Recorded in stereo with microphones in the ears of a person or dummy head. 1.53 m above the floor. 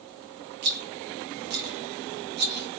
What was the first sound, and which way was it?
A rattle, 35° right (ahead or behind).